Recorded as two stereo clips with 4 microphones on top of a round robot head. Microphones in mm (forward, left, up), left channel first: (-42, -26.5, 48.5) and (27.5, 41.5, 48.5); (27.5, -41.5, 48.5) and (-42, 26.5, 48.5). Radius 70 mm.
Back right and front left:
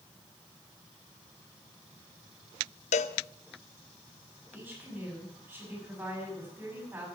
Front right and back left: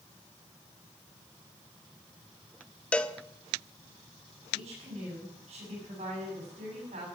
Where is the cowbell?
125° right, 0.6 m.